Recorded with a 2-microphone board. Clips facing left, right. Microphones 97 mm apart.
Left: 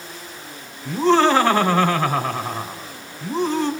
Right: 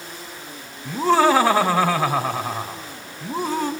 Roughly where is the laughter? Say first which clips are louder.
Left 1 dB; centre.